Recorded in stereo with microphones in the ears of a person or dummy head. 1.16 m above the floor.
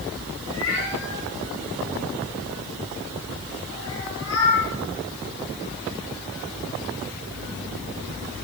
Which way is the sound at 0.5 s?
75° left (ahead or behind).